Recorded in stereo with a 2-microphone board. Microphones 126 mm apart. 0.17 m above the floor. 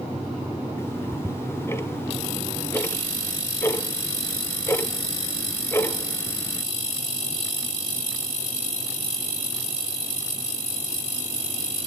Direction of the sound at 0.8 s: 20° left (ahead or behind).